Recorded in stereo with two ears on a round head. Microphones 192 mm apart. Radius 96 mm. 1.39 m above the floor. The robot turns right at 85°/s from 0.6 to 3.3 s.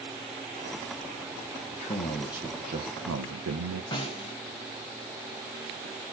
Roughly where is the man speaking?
Behind left.